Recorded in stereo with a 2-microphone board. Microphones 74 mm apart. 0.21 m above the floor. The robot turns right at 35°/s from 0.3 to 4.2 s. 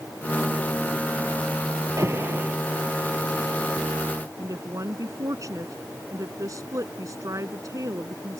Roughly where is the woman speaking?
Right.